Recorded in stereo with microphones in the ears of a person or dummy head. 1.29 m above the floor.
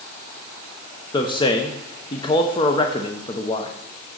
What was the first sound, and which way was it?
A man speaking, 25° left (ahead or behind).